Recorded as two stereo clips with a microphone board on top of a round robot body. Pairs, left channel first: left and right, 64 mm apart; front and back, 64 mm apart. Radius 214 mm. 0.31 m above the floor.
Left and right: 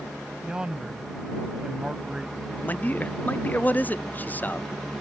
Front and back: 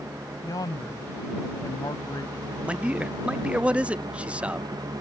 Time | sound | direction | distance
0.4 | a man speaking | 15° right | ?
2.6 | a man speaking | 125° left | ?